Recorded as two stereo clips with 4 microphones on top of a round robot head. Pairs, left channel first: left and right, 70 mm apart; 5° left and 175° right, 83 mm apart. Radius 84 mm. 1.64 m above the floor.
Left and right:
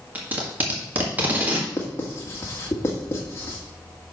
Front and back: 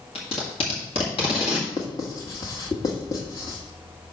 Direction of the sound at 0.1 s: 25° right.